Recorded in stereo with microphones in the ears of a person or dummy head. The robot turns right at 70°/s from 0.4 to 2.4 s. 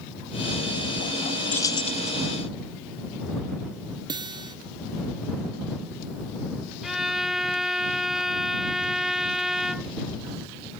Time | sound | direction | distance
1.5 | keys jangling | 10° left | ?
4.1 | a guitar | 25° right (ahead or behind) | ?
6.8 | a violin | centre (ahead or behind) | ?